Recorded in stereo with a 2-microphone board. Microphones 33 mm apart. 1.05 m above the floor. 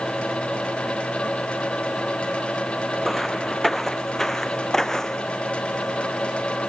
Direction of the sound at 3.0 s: Centre (ahead or behind).